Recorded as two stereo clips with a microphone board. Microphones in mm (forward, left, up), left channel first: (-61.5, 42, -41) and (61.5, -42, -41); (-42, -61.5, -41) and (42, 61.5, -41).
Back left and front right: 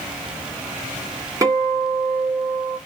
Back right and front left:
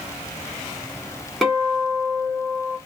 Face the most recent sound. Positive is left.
turn(degrees=-40)